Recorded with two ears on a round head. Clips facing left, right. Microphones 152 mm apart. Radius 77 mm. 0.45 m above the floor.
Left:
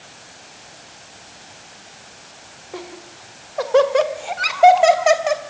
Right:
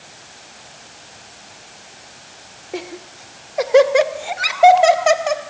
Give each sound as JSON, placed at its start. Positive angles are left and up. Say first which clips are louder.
{"t": 2.7, "sound": "laughter", "louder": "right 5 dB", "side_deg": -30, "distance_m": 1.8}